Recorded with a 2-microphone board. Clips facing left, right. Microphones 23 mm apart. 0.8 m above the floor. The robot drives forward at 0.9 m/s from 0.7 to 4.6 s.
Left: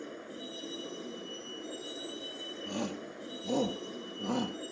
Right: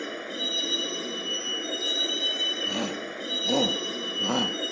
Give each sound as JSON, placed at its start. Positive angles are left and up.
{"t": 0.0, "sound": "a vehicle", "side_deg": -70}
{"t": 2.7, "sound": "a shout", "side_deg": -25}